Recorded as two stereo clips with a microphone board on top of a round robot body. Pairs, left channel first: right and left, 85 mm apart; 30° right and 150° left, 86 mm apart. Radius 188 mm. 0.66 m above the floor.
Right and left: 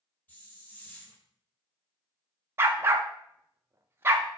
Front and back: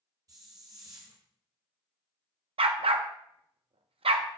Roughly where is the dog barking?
Behind left.